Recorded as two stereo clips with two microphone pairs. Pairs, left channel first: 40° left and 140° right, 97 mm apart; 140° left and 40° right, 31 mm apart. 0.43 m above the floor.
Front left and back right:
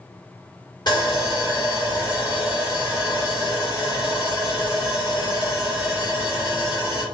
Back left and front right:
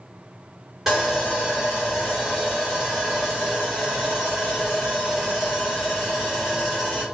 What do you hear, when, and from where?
0.9 s sawing: 40° left, 1.5 m